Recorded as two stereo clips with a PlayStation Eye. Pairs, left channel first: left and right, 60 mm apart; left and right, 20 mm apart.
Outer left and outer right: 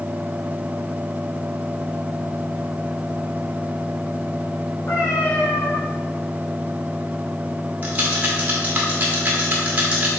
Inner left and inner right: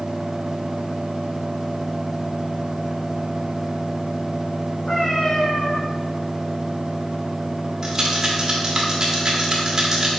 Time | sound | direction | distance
4.9 | a cat meowing | 65° left (ahead or behind) | 3.5 m
7.8 | a rattle | 25° right (ahead or behind) | 1.5 m